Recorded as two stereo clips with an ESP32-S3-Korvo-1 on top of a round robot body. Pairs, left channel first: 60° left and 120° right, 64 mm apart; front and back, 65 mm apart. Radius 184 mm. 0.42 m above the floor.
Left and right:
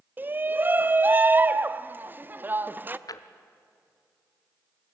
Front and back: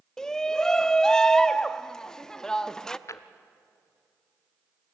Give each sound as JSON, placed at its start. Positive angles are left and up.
{"t": 0.2, "sound": "a shout", "azimuth_deg": -75, "distance_m": 0.8}
{"t": 3.1, "sound": "a drawer", "azimuth_deg": 40, "distance_m": 1.0}